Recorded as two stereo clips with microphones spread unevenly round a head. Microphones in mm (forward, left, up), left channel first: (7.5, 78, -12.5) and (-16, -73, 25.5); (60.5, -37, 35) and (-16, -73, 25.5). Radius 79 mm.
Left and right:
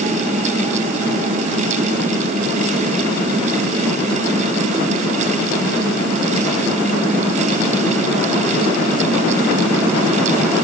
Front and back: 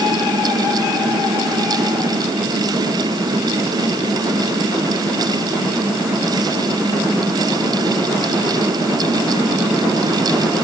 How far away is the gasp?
I don't hear a gasp.